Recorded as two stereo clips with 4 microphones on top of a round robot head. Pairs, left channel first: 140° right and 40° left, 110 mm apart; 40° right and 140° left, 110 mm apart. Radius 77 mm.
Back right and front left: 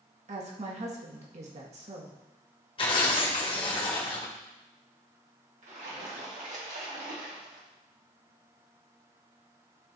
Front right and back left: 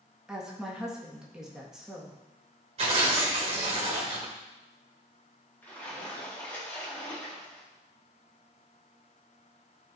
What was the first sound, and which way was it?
A woman speaking, 55° left.